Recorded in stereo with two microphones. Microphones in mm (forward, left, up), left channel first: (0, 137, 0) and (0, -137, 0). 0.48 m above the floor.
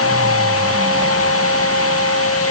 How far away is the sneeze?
No sneeze in this recording.